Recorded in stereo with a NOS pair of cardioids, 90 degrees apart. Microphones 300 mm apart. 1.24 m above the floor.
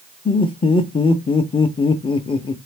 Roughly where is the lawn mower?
No lawn mower in this recording.